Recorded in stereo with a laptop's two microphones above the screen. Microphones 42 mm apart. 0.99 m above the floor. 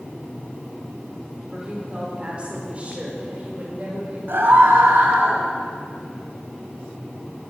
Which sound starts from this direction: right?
A scream, at 4.3 s.